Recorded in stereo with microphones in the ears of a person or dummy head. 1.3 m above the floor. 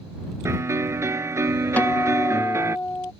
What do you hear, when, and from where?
0.5 s a piano: 15° right (ahead or behind)
1.8 s a guitar: 10° left (ahead or behind)